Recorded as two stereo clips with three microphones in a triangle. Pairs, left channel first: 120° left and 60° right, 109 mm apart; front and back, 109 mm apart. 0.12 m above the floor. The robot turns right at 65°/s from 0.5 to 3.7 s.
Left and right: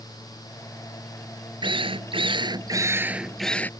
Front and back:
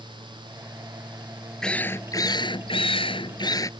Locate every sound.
1.6 s a drill: 85° right; by 3.7 s 50° left